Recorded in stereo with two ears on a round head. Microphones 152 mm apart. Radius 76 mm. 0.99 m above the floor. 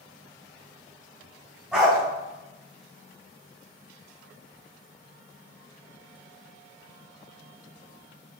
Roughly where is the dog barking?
Centre.